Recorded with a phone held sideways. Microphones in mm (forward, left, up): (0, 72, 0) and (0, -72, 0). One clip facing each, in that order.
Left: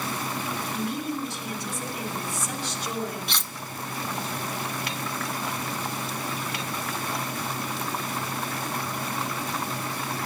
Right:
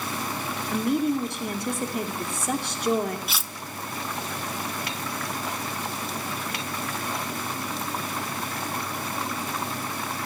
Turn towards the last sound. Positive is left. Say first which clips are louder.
# even
turn(degrees=-5)  # may be behind; listen again after turning